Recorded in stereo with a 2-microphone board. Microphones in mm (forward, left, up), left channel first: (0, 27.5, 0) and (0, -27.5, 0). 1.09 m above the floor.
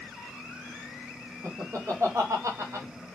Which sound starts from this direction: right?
Laughter, at 1.4 s.